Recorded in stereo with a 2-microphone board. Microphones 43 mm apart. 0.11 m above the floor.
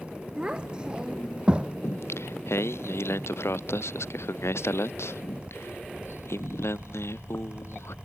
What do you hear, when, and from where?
0.4 s a child speaking: 20° right (ahead or behind); by 1.7 s 25° right (ahead or behind)
1.8 s singing: 85° left